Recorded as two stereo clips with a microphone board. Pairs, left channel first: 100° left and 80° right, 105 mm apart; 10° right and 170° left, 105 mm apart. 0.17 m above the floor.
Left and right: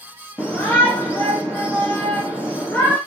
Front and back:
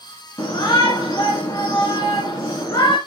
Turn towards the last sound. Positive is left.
turn(degrees=35)